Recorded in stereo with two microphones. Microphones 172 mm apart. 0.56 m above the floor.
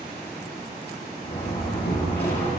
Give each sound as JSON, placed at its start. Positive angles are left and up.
{"t": 1.2, "sound": "a door slam", "side_deg": 70, "distance_m": 8.5}